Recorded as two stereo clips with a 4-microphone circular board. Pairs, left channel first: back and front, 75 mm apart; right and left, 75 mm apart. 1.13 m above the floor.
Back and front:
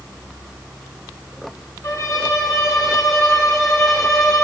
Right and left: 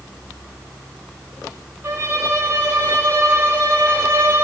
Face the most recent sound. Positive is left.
turn(degrees=145)